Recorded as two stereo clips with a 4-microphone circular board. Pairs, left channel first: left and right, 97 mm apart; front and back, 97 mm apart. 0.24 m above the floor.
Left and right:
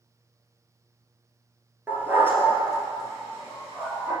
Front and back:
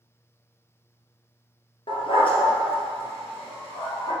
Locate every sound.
1.9 s a dog barking: 20° right, 1.7 m; by 4.1 s 25° right, 5 m